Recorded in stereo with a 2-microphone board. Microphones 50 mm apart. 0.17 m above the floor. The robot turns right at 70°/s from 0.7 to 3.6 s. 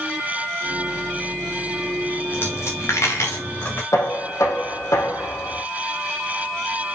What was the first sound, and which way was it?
A dropped coin, 40° left (ahead or behind).